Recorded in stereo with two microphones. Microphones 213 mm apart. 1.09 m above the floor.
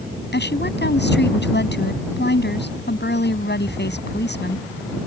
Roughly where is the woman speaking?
Left.